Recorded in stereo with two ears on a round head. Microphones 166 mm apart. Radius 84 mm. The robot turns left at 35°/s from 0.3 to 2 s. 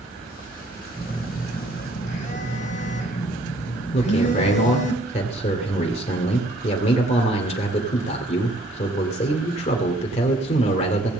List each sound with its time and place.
1.0 s a phone buzzing: 165° left, 2.5 m; by 4.9 s 130° left, 2.5 m
3.9 s a man speaking: 40° left (ahead or behind), 1.9 m